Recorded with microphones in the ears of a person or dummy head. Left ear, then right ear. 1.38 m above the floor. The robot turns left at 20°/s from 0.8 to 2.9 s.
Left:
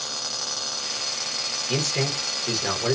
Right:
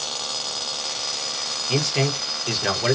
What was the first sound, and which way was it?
A man speaking, 5° right (ahead or behind).